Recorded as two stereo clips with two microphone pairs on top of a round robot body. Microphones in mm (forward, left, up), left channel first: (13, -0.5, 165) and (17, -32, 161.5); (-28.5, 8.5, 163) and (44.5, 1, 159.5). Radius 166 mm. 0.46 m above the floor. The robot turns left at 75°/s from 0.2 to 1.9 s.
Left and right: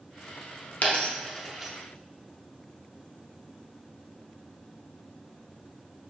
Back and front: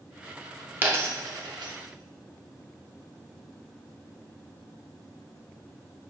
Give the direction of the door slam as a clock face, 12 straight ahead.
I don't hear a door slam.